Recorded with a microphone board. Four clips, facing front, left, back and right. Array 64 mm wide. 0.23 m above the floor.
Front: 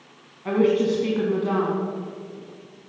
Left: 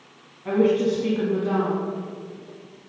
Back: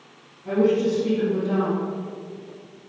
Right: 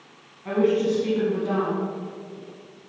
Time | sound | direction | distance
0.5 | a woman speaking | 5° left | 1.7 m